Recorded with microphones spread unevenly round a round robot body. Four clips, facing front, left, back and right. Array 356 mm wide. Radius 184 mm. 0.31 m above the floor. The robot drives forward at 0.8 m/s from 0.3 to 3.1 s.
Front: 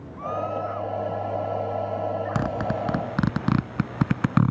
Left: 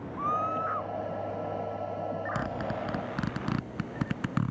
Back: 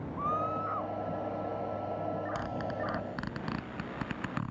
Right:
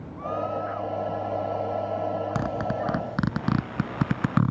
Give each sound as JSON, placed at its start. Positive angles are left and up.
{"t": 0.2, "sound": "a scream", "azimuth_deg": 105}
{"t": 2.4, "sound": "a zipper", "azimuth_deg": -20}